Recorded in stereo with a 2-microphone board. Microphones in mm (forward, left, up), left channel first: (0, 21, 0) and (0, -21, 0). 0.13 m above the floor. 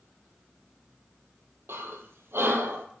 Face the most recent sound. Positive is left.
turn(degrees=-70)  # may be behind; listen again after turning